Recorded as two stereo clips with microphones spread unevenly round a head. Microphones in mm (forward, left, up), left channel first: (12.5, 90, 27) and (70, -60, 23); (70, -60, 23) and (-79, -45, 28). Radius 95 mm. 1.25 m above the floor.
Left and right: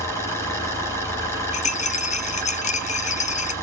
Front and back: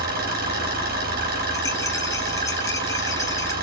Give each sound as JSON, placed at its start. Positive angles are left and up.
{"t": 0.0, "sound": "an engine running", "azimuth_deg": -170, "distance_m": 6.0}
{"t": 1.5, "sound": "a rattle", "azimuth_deg": 70, "distance_m": 0.6}